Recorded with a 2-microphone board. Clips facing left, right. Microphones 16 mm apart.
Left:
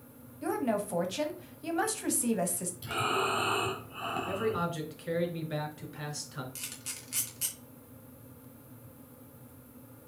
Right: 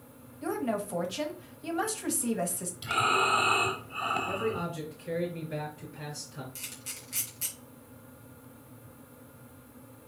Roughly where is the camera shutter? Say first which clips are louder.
Even; centre.